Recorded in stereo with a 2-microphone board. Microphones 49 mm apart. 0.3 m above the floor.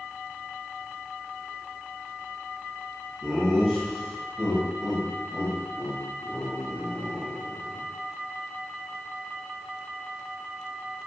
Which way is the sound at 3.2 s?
Centre (ahead or behind).